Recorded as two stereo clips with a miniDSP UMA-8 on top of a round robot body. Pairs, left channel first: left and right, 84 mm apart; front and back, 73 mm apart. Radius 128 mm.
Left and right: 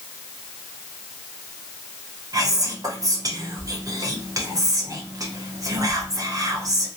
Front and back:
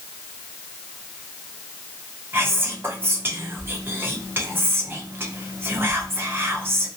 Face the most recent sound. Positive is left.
turn(degrees=-125)